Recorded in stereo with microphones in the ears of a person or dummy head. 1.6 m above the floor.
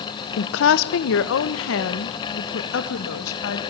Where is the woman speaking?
60° left (ahead or behind), 0.9 m; by 3.6 s 80° left, 2.5 m.